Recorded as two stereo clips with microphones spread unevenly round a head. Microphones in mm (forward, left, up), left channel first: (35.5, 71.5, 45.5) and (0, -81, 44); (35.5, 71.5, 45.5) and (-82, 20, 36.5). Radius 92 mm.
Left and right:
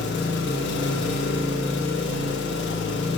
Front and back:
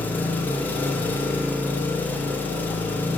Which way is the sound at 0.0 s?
100° left.